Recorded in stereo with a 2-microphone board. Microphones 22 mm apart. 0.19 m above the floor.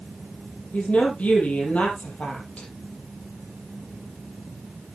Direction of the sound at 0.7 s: 65° left (ahead or behind).